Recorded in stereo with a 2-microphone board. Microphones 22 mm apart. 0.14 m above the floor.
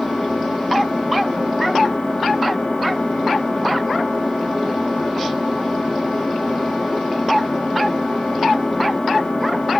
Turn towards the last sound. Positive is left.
turn(degrees=70)  # may be behind; listen again after turning